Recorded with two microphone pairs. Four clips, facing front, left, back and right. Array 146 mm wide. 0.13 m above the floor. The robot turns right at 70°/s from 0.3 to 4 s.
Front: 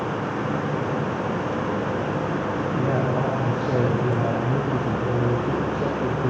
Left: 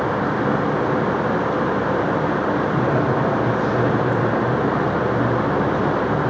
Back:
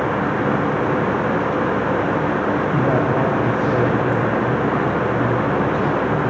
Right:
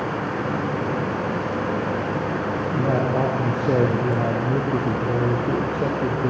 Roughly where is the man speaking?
Behind.